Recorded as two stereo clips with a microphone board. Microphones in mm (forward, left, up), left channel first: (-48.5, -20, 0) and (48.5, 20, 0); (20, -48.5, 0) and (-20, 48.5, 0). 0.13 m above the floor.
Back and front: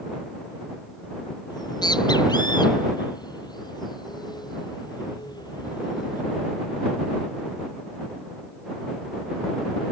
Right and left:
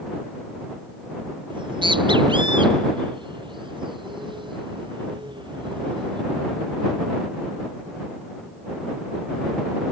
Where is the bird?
155° left.